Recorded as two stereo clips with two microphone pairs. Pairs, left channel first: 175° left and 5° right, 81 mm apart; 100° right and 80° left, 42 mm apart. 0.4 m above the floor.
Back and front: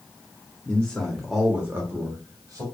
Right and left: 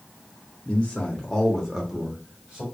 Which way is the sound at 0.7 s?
130° right.